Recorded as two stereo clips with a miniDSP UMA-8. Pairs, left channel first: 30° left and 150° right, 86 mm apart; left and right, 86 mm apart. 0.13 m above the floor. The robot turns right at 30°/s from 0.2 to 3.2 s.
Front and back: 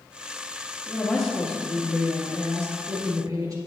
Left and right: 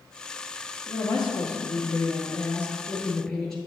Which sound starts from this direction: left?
A woman speaking, at 0.9 s.